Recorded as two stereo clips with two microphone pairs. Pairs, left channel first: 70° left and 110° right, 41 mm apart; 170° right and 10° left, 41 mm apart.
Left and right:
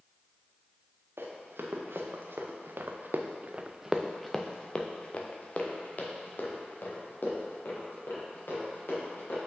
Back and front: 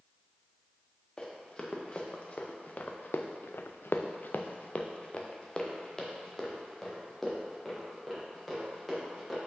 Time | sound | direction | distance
1.2 | running footsteps | 105° right | 1.8 m